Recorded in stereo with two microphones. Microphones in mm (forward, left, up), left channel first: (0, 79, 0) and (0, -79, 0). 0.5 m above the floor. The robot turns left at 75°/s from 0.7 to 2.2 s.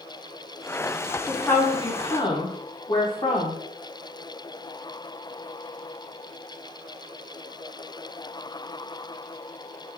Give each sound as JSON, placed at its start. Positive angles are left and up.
{"t": 1.3, "sound": "a woman speaking", "azimuth_deg": 160, "distance_m": 0.9}